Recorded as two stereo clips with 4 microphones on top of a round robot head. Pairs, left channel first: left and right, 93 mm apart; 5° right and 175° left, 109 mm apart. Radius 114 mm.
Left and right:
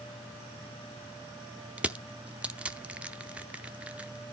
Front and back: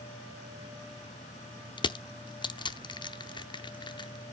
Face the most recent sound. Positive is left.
turn(degrees=-20)